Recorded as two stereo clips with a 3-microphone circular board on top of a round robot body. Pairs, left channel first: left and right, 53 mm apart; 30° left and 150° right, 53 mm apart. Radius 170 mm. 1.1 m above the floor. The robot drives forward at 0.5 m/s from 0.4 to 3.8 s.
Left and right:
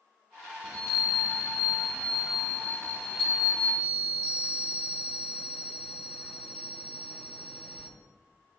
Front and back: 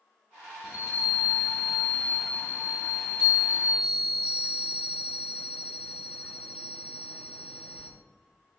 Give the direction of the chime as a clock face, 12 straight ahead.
10 o'clock.